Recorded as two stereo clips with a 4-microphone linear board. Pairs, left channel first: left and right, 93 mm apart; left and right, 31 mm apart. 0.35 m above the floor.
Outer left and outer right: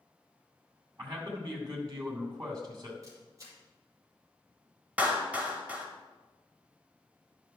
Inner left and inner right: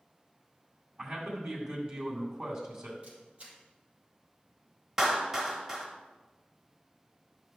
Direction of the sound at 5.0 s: 15° right (ahead or behind).